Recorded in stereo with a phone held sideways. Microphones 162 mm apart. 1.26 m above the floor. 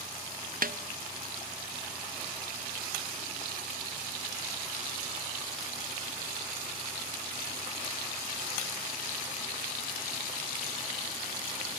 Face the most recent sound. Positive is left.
turn(degrees=-65)  # may be behind; listen again after turning